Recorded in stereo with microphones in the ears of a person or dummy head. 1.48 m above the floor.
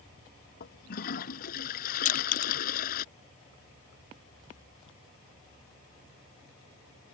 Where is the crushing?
35° left (ahead or behind).